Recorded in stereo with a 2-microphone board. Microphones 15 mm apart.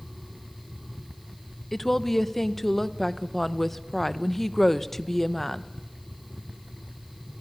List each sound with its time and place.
1.7 s a woman speaking: 15° left (ahead or behind), 0.9 m